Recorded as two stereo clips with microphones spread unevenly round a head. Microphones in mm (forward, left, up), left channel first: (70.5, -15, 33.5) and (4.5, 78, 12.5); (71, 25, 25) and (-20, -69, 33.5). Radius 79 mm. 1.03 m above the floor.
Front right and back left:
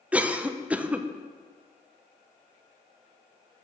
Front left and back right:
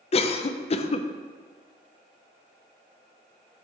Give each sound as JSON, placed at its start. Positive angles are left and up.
{"t": 0.1, "sound": "a cough", "azimuth_deg": 60, "distance_m": 0.6}